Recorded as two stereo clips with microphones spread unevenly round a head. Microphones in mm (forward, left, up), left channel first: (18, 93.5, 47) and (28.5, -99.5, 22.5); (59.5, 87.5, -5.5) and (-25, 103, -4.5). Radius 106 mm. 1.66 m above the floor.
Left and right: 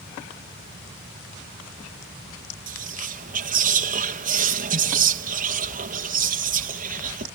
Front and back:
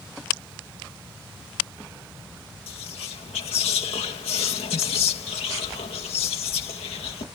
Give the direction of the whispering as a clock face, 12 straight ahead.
1 o'clock.